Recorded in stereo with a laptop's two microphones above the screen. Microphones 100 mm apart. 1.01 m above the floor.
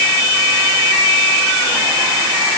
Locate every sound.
Only background noise.